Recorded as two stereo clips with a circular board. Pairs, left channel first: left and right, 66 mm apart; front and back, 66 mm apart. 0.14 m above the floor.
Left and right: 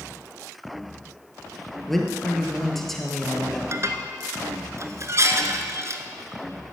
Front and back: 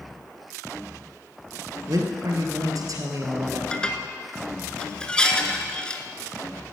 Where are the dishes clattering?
70° right, 1.1 m.